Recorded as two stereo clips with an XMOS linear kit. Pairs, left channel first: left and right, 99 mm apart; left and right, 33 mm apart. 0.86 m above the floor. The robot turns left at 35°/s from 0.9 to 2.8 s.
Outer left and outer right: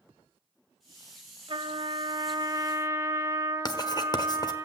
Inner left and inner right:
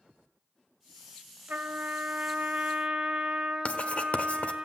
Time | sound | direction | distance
1.5 | a trumpet | 100° right | 1.7 m
3.6 | writing | 45° left (ahead or behind) | 1.2 m